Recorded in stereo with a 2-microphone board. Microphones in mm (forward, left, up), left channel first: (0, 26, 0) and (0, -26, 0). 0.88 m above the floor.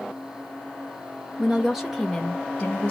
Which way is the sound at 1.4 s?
15° right (ahead or behind).